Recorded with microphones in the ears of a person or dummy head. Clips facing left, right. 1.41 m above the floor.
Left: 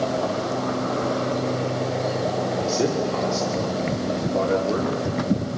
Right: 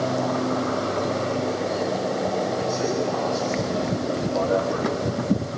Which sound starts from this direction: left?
A man speaking, at 2.6 s.